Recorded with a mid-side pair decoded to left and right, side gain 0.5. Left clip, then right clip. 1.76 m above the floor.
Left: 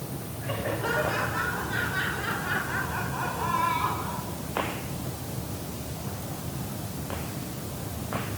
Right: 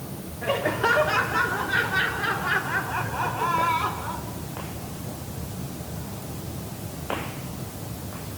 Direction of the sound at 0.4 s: 65° right.